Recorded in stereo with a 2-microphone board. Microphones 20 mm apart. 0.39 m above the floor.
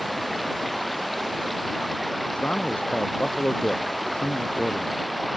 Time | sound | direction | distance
0.0 | running water | 5° left (ahead or behind) | ?
2.3 | a man speaking | 70° left (ahead or behind) | ?